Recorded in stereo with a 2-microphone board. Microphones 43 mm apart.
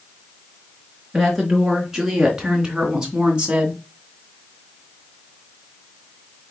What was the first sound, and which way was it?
A woman speaking, 5° right (ahead or behind).